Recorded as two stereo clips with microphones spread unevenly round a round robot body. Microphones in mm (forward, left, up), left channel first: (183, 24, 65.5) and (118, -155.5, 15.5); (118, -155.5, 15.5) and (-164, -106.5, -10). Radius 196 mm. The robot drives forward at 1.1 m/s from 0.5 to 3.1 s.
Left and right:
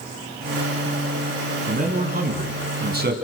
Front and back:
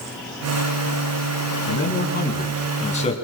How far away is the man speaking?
About 5.5 m.